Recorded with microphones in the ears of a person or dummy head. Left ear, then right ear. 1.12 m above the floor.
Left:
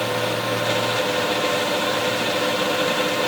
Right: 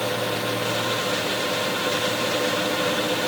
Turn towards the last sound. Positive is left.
No sound to turn to.